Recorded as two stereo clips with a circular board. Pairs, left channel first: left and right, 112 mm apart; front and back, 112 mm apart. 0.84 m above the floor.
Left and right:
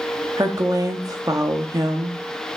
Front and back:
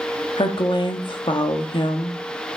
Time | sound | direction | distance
0.4 | a woman speaking | 35° right | 1.2 m